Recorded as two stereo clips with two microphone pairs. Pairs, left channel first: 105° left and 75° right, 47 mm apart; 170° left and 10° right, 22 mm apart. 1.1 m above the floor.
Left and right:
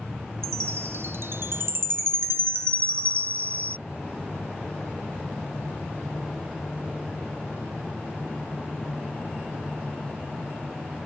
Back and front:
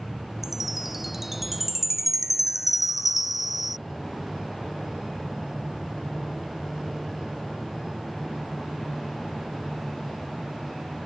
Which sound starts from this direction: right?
A chime, at 0.4 s.